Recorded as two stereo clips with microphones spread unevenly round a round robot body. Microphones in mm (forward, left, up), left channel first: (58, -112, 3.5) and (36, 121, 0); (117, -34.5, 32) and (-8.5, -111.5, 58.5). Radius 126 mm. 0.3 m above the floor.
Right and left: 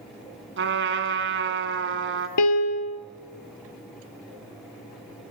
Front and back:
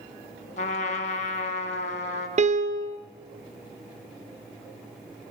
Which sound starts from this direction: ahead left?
A trumpet, at 0.6 s.